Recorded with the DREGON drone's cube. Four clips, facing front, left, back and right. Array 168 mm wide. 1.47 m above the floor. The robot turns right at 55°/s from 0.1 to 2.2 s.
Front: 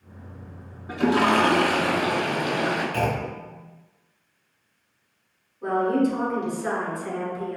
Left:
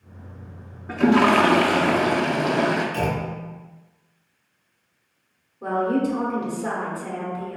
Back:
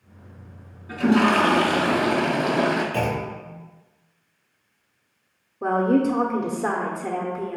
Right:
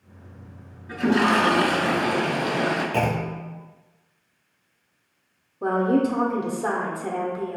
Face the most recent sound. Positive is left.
turn(degrees=-150)